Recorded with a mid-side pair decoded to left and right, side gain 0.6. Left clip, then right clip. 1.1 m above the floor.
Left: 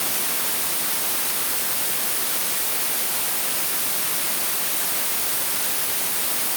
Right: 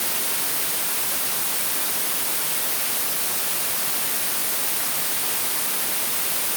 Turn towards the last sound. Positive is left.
No sound to turn to.